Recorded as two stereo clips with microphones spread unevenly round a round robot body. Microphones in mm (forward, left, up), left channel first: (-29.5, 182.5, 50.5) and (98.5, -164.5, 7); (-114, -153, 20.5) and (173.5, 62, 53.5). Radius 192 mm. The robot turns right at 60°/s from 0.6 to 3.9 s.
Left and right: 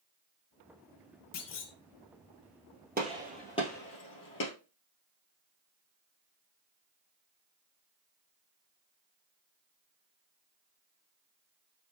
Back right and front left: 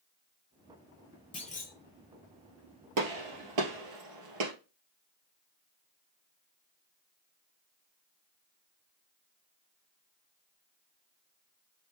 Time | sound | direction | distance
1.3 | a clunk | 150° left | 0.7 m
3.0 | a gunshot | straight ahead | 2 m